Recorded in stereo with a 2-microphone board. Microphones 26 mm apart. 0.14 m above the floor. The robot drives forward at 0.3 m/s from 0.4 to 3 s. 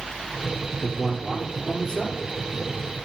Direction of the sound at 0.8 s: 15° left (ahead or behind).